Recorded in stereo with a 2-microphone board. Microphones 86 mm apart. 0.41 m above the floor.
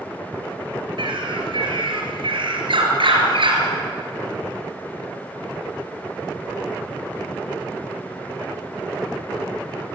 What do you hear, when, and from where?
1.0 s a bird: 75° right (ahead or behind), 4 m